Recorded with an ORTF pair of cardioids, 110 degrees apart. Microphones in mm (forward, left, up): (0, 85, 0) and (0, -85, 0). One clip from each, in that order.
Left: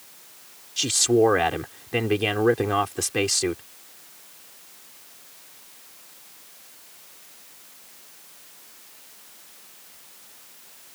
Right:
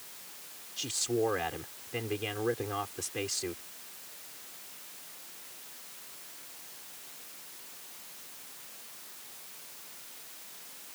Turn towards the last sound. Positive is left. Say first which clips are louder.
# left 12 dB
turn(degrees=65)